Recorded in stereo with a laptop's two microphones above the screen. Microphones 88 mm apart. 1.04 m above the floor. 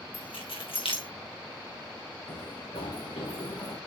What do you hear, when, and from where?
0.1 s keys jangling: 85° left, 2.5 m
2.3 s running footsteps: 70° left (ahead or behind), 4 m; by 3.8 s 80° left, 5.5 m